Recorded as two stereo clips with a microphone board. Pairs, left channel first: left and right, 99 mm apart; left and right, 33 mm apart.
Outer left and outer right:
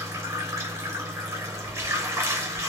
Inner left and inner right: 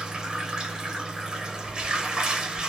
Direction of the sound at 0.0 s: 30° right (ahead or behind).